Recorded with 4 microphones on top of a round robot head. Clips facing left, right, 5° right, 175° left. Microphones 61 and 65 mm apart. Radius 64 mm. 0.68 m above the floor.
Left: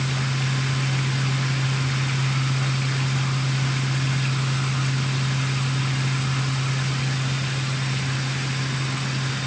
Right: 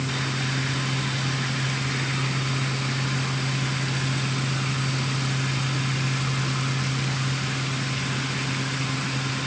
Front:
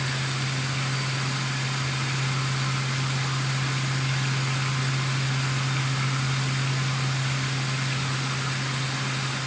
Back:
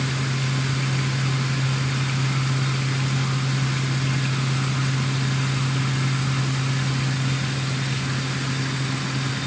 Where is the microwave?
No microwave in this recording.